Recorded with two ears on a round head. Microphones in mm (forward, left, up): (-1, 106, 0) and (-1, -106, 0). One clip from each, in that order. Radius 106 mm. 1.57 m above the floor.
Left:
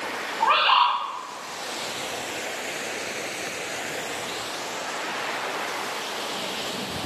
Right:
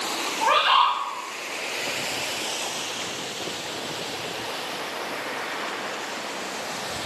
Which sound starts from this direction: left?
A bird, at 0.4 s.